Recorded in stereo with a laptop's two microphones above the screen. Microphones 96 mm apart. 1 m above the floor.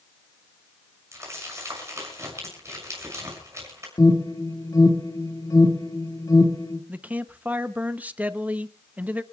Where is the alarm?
40° left (ahead or behind), 1.9 m.